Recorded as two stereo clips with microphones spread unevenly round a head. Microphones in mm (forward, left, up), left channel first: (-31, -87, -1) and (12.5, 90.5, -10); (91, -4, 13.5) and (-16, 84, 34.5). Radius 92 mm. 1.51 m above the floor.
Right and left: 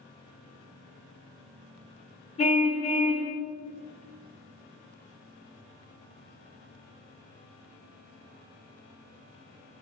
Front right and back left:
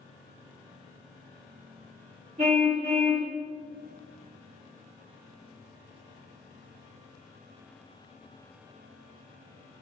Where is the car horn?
160° right, 3.5 m.